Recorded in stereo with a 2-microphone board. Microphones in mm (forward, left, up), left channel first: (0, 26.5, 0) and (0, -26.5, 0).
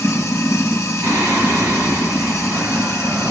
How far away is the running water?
About 0.8 m.